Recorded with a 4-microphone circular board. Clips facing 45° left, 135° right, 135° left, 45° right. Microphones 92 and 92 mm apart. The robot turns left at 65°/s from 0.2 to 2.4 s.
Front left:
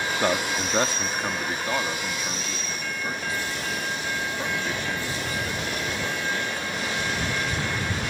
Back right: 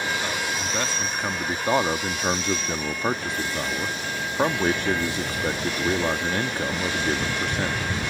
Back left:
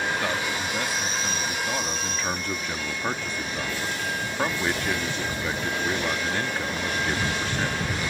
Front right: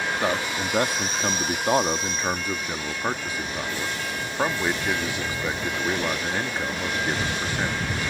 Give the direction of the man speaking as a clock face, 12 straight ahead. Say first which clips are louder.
Front left 3 dB, front right 2 dB; 11 o'clock.